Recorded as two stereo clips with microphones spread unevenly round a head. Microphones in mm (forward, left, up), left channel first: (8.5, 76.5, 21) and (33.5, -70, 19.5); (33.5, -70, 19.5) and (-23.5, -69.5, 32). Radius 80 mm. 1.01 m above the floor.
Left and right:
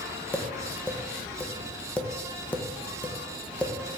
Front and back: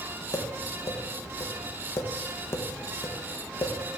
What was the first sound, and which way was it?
Tapping, 20° left.